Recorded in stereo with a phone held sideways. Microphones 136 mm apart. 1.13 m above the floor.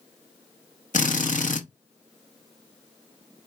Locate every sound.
0.9 s a drill: 70° left (ahead or behind), 1.1 m